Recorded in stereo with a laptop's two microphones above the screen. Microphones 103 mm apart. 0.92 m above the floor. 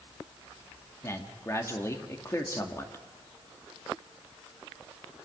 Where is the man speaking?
25° left (ahead or behind), 1.8 m.